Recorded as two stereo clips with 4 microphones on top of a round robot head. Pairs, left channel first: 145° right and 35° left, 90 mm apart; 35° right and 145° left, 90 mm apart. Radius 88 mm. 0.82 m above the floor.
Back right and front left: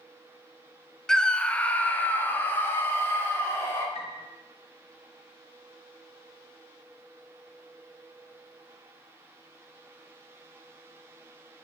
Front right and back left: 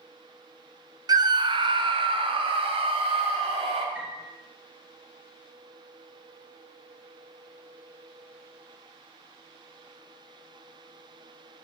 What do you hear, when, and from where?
1.1 s a scream: 135° left, 0.9 m; by 3.9 s 155° left, 2.5 m
4.0 s a piano: 140° right, 1.0 m